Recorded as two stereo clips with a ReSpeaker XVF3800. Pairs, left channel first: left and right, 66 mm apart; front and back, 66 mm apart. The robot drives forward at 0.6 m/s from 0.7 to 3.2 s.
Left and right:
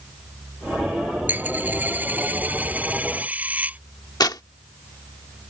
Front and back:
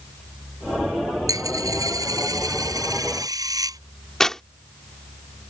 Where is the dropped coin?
150° right; by 3.8 s 155° right.